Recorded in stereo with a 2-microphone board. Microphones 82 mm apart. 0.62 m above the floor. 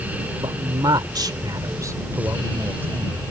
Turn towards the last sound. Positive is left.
turn(degrees=-25)  # may be behind; listen again after turning